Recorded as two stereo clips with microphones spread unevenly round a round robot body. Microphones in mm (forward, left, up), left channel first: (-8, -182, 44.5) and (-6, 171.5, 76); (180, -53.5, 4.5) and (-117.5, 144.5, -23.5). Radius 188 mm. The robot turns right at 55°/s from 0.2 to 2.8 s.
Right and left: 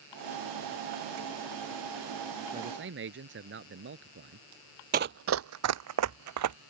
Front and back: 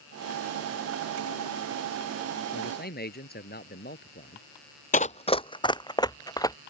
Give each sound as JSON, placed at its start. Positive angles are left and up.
{"t": 2.5, "sound": "a man speaking", "azimuth_deg": 15}
{"t": 4.9, "sound": "running footsteps", "azimuth_deg": 30}